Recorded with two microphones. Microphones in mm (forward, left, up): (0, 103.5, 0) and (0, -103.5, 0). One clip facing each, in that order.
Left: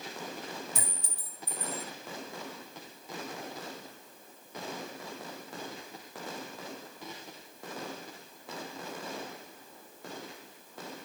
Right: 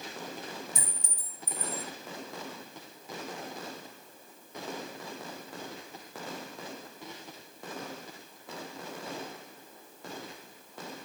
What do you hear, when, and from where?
0.8 s a clink: 65° left (ahead or behind), 1.4 m